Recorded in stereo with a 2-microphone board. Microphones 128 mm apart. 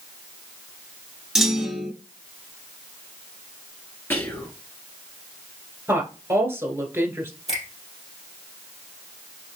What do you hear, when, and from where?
1.4 s a clunk: 5° right (ahead or behind), 1.4 m
4.1 s whispering: 20° left (ahead or behind), 1.7 m
5.9 s a woman speaking: 20° right (ahead or behind), 1.3 m
7.5 s a finger snap: 60° left (ahead or behind), 2.5 m